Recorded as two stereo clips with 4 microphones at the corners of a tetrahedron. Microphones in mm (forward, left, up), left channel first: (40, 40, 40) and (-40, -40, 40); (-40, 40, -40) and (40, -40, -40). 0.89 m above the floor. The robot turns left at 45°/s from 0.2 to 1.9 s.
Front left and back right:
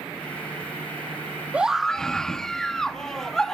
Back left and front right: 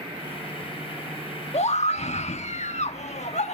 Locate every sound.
1.5 s a scream: 150° left, 1.1 m; by 3.5 s 130° left, 1.1 m